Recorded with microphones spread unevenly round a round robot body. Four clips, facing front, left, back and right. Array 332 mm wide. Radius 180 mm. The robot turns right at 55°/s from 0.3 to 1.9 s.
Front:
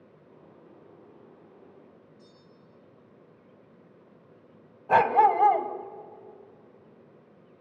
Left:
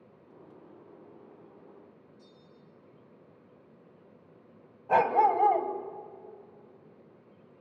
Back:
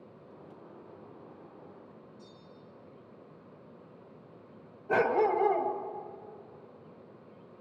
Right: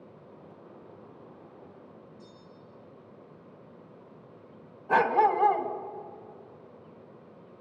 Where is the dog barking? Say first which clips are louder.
Even, front 6 dB; 10° left, 1.5 m.